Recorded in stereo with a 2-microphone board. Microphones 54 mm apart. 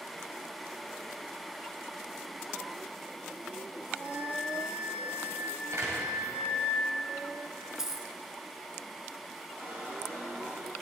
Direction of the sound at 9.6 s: 40° right (ahead or behind).